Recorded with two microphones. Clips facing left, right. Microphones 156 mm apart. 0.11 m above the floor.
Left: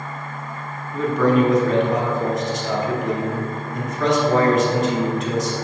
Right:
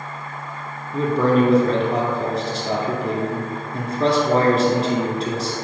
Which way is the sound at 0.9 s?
35° right (ahead or behind).